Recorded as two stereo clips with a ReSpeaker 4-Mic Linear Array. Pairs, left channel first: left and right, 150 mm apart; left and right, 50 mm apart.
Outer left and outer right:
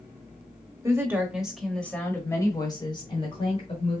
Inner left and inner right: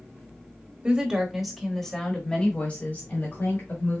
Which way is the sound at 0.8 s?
20° right (ahead or behind).